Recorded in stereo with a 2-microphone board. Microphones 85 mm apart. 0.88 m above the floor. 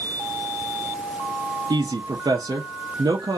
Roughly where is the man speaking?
Right.